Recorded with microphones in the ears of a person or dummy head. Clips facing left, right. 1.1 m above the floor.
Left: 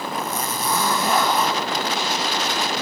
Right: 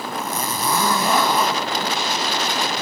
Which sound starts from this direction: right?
A zipper, at 0.1 s.